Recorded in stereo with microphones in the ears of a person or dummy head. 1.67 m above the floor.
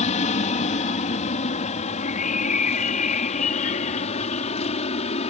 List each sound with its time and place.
0.0 s an aircraft: 40° left (ahead or behind)
2.0 s a bird: 40° left (ahead or behind)